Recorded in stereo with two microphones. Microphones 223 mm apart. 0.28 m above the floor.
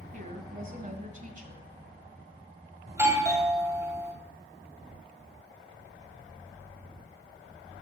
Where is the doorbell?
15° right (ahead or behind), 1.7 m.